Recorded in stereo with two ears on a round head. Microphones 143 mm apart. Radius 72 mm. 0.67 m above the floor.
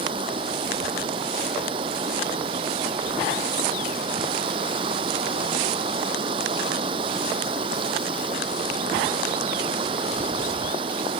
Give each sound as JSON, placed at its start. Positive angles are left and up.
{"t": 0.0, "sound": "running water", "side_deg": -30}